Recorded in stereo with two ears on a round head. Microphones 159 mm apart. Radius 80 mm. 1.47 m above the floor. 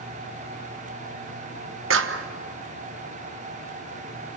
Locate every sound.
1.9 s a clap: 75° right (ahead or behind), 1.2 m